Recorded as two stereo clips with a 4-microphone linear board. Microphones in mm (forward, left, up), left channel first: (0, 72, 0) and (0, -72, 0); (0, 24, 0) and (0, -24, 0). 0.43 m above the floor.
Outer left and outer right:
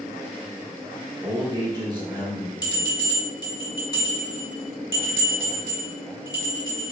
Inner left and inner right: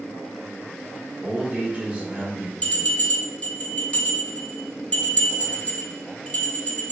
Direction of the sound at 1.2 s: 25° right (ahead or behind).